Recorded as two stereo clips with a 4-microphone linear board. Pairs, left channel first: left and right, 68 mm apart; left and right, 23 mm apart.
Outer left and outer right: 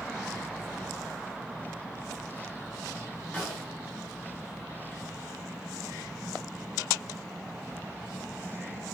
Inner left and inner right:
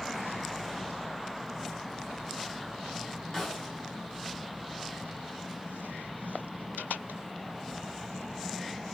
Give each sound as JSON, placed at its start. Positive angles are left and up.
{"t": 3.3, "sound": "a snare drum", "side_deg": 20, "distance_m": 4.5}